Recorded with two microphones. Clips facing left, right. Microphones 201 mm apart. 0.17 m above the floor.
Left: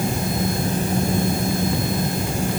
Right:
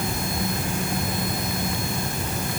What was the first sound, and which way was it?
Only background noise.